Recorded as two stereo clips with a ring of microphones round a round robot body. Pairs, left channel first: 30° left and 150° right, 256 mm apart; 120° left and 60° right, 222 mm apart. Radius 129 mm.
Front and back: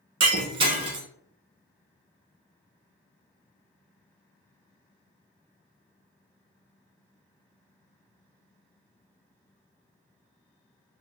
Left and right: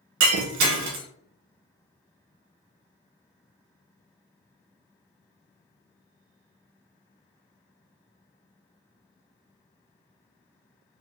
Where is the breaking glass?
80° right, 1.0 m.